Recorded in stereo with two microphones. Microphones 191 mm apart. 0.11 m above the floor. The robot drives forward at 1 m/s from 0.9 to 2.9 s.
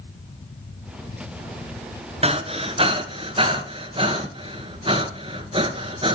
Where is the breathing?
30° right (ahead or behind), 1.3 m; by 6.2 s 25° right (ahead or behind), 1.6 m.